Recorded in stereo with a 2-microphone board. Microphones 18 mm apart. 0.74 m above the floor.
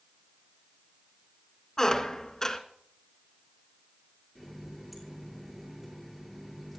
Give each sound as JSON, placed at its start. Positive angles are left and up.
{"t": 1.8, "sound": "a squeak", "side_deg": 35, "distance_m": 1.7}
{"t": 4.3, "sound": "a running tap", "side_deg": -5, "distance_m": 9.0}